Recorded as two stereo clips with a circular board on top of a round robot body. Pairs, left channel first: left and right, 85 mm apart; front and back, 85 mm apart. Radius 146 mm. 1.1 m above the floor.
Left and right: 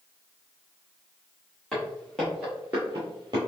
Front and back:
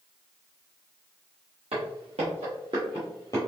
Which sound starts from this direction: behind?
Footsteps, at 1.7 s.